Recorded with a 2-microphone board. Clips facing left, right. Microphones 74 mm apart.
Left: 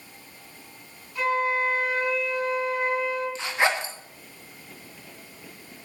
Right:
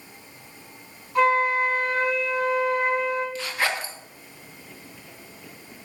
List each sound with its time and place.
1.1 s a flute: 70° right (ahead or behind), 4.5 m
3.4 s a zipper: 25° left (ahead or behind), 1.6 m